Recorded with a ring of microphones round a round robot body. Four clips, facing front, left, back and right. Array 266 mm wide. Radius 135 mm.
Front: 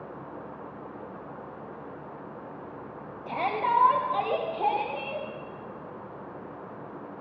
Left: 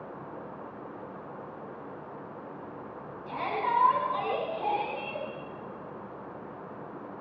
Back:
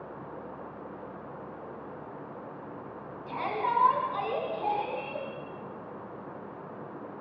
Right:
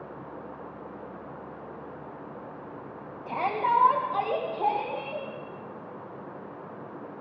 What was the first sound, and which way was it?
A shout, 40° right.